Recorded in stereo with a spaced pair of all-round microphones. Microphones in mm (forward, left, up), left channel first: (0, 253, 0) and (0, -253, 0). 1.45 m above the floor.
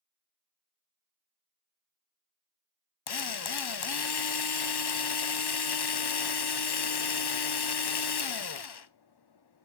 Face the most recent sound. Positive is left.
turn(degrees=50)  # may be behind; listen again after turning